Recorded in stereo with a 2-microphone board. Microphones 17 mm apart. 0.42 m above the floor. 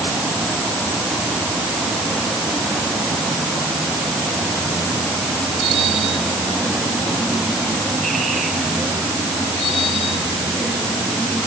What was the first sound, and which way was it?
Only background noise.